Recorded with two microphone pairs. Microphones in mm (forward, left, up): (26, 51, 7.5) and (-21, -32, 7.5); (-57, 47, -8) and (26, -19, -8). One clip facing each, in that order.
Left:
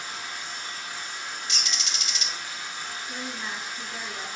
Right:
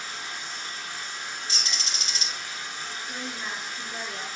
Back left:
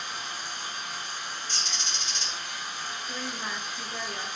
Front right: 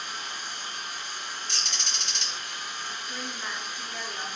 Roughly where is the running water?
Behind left.